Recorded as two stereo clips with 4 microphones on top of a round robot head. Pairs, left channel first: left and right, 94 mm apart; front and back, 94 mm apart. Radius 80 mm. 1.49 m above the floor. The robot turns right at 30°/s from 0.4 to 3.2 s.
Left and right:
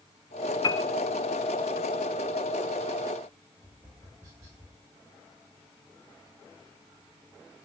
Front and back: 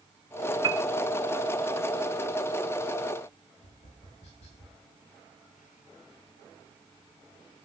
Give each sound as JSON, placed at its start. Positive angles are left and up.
{"t": 0.6, "sound": "a piano", "azimuth_deg": 135, "distance_m": 0.8}
{"t": 3.6, "sound": "tapping", "azimuth_deg": -25, "distance_m": 8.5}